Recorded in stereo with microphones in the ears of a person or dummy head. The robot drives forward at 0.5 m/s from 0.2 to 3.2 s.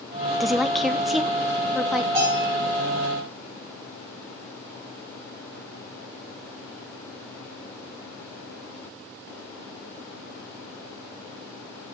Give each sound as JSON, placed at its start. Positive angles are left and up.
{"t": 0.4, "sound": "a woman speaking", "side_deg": 0, "distance_m": 0.6}
{"t": 2.1, "sound": "a bell", "side_deg": -25, "distance_m": 7.0}